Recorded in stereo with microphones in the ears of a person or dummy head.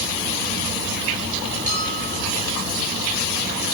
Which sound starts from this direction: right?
A bell, at 1.7 s.